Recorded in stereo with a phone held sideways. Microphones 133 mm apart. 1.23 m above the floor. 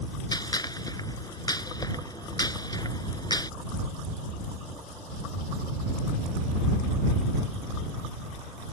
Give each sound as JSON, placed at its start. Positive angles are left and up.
{"t": 0.3, "sound": "a gunshot", "side_deg": 30}